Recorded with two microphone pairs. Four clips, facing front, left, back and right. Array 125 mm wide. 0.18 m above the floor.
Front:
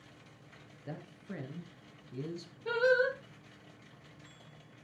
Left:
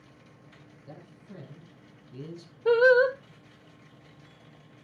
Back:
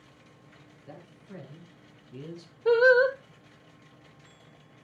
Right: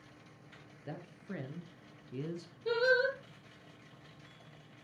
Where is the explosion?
I don't hear an explosion.